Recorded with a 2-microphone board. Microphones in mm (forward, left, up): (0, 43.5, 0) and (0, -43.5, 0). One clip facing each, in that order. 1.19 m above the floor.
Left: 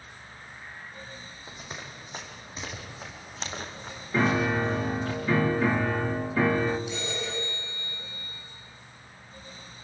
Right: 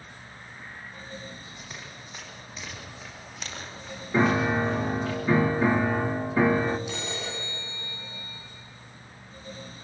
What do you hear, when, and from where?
1.5 s running footsteps: 30° left (ahead or behind), 3.5 m
4.1 s a piano: 15° right (ahead or behind), 1.0 m
6.9 s a phone ringing: 75° right (ahead or behind), 6.5 m